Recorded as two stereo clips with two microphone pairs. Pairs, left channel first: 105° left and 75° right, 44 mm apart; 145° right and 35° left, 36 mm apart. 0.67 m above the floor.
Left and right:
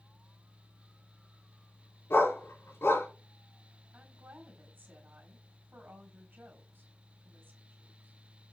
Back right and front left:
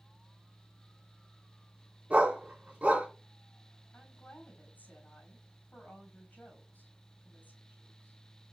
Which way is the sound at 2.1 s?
85° left.